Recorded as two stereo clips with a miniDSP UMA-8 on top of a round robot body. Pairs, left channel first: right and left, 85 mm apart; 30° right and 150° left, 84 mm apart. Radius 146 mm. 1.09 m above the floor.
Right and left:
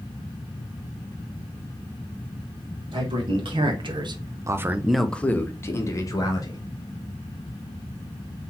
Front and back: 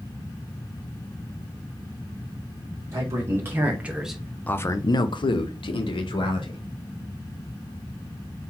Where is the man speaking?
95° left, 1.6 m; by 6.6 s 45° right, 1.7 m.